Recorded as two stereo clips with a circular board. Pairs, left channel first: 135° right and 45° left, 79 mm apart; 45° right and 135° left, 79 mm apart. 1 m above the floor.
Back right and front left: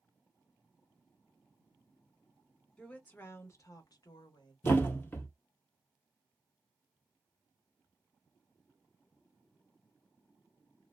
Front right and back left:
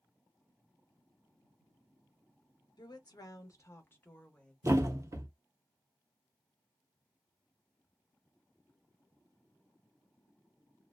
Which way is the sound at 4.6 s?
170° left.